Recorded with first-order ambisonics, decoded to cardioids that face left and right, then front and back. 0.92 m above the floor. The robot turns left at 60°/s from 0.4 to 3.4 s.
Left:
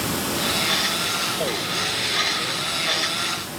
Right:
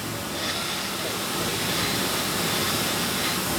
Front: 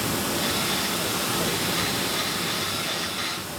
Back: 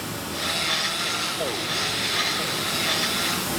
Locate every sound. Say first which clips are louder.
0.0 s running water: left 5 dB, front 3 dB; 50° left, 0.9 m; by 3.6 s 130° right, 0.9 m